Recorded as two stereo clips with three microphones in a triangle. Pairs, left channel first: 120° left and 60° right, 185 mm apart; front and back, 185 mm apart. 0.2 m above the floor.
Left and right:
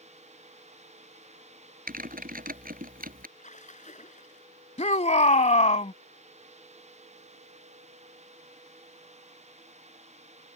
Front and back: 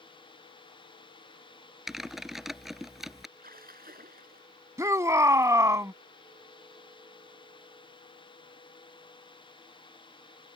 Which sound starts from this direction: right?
Typing on a keyboard, at 1.9 s.